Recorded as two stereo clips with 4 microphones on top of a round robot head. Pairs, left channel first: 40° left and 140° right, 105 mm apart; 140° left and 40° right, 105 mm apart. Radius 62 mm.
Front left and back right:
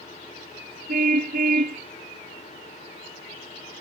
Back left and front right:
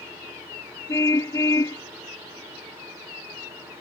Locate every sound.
0.9 s a car horn: 155° right